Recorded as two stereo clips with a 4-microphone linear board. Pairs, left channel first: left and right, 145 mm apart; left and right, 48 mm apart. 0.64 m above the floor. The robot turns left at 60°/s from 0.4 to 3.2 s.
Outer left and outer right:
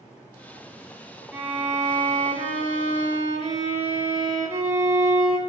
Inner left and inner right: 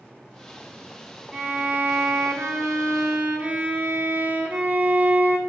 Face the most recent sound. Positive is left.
turn(degrees=-115)